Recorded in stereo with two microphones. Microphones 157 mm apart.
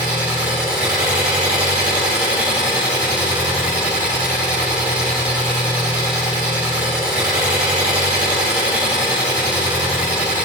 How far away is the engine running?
About 4.5 m.